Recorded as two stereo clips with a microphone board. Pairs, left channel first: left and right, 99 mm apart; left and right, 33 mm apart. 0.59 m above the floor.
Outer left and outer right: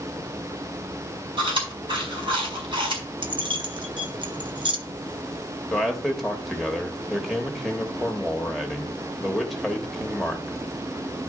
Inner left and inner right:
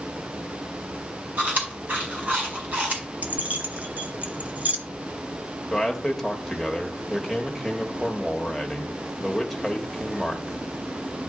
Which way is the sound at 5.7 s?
Centre (ahead or behind).